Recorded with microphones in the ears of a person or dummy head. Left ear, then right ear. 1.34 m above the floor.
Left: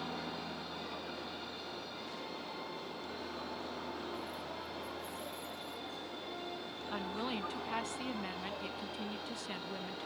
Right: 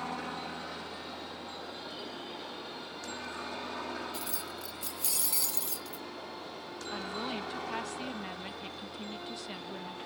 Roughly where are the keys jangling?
Right.